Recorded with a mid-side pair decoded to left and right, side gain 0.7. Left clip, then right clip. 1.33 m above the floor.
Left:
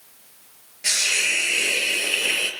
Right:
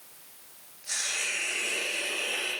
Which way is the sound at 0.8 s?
70° left.